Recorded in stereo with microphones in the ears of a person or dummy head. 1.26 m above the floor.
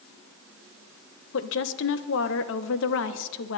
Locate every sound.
1.3 s a woman speaking: 65° left (ahead or behind), 1.1 m